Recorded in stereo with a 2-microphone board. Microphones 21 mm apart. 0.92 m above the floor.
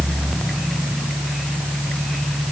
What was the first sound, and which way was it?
Only background noise.